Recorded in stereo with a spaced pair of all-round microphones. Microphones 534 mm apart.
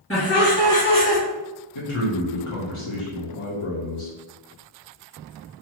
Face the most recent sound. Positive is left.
turn(degrees=65)  # may be behind; listen again after turning